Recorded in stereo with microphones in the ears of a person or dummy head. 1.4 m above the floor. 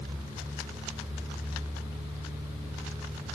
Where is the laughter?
I don't hear laughter.